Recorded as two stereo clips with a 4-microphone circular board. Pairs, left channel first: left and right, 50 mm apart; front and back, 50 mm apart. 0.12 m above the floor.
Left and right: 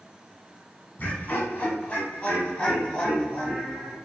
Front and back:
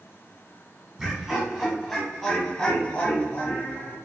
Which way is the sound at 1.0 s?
120° left.